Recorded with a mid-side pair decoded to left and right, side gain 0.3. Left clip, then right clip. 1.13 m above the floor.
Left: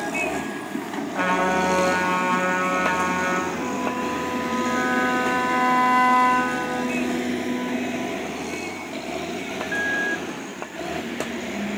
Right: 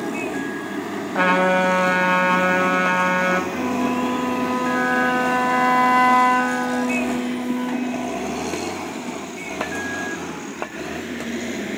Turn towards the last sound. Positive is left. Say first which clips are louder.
# right 3 dB
turn(degrees=-30)